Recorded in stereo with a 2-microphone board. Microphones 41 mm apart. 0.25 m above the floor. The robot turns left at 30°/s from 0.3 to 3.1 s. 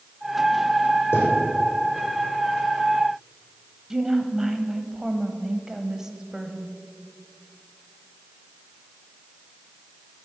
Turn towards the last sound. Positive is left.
turn(degrees=-15)  # may be behind; listen again after turning